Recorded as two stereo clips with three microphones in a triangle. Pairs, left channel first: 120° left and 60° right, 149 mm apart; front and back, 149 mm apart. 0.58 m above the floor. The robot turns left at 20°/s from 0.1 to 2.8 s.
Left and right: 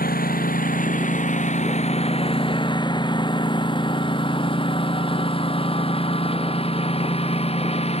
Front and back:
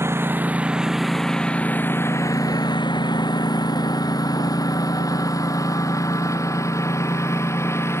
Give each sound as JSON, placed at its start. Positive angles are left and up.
{"t": 0.0, "sound": "a lawn mower", "azimuth_deg": 105}